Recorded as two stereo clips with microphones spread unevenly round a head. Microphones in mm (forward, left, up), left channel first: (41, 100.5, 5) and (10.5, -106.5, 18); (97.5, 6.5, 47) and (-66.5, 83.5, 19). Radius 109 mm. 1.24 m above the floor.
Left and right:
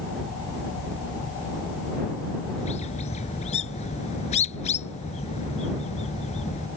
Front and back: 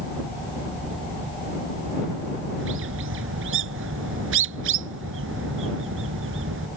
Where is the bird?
145° left.